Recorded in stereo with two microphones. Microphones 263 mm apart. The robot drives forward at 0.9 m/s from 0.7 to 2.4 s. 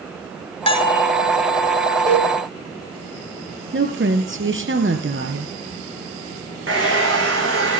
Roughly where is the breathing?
I don't hear breathing.